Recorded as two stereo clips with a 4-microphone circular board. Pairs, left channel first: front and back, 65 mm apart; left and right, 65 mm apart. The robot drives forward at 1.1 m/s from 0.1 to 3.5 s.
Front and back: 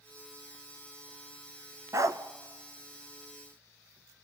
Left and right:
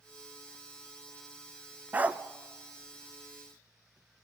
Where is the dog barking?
150° right, 0.7 m; by 2.2 s 160° right, 0.9 m.